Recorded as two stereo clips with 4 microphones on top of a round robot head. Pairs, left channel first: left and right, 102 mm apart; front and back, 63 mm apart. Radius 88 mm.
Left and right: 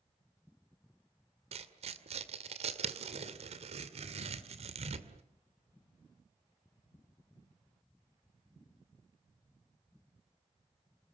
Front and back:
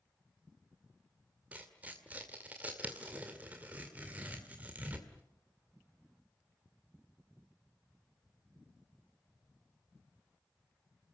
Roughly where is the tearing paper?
Right.